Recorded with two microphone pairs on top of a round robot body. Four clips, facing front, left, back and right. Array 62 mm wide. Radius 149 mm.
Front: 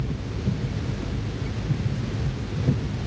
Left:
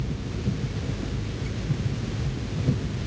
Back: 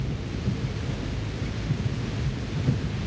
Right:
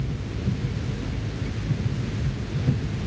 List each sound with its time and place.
Only background noise.